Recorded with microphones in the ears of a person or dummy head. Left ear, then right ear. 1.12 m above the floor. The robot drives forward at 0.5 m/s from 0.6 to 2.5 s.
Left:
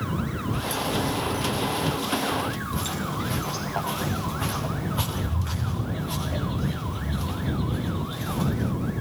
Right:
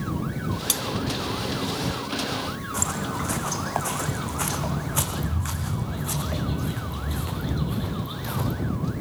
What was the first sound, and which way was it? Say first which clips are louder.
Cutlery clinking: right 3 dB; 55° right (ahead or behind).